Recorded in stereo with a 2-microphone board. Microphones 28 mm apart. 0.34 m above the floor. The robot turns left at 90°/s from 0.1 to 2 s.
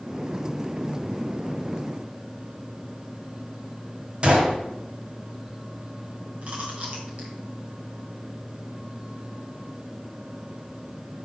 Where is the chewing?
55° right (ahead or behind), 2.5 m.